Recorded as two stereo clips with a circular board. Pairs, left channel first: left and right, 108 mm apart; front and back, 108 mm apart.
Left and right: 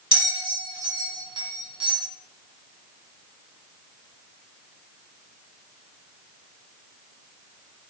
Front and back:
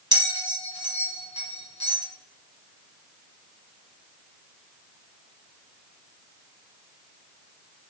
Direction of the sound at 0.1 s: 130° right.